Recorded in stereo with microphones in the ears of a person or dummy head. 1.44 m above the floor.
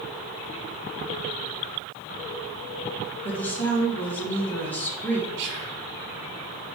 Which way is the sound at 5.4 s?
60° right (ahead or behind).